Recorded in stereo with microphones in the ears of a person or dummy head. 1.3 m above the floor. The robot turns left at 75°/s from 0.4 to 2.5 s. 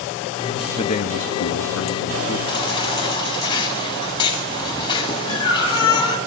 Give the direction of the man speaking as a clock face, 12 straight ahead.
7 o'clock.